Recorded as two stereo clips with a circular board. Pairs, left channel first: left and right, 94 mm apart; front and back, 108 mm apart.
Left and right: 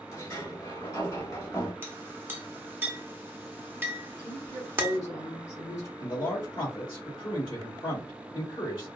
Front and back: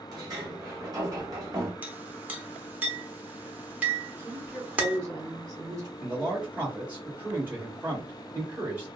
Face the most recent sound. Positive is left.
turn(degrees=110)